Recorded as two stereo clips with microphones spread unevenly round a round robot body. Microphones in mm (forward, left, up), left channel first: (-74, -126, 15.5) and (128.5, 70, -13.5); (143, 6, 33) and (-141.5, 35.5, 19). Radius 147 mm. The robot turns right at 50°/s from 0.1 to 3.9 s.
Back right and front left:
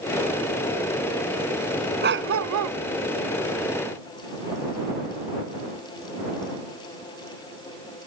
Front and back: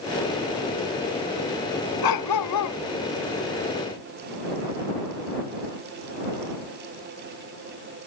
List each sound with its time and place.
2.0 s a dog barking: 10° right; by 2.8 s 30° left